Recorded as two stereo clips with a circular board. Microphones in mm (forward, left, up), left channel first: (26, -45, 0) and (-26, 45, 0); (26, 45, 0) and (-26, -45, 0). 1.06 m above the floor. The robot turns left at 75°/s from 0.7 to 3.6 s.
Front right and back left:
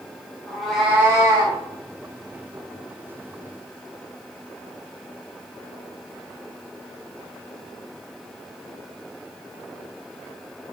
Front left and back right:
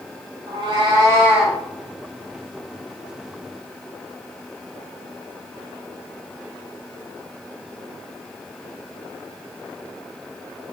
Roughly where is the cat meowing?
Behind right.